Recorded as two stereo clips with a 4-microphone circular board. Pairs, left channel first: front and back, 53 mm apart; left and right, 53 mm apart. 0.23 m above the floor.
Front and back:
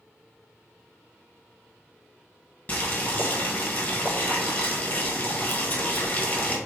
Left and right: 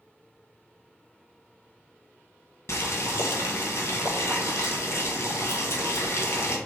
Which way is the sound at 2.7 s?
55° left.